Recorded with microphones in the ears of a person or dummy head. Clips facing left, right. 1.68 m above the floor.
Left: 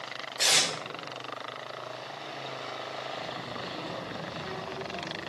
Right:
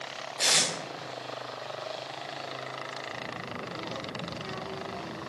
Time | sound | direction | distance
0.4 | tape being pulled | 5° right (ahead or behind) | 2 m
3.1 | a child speaking | 60° right (ahead or behind) | 3.5 m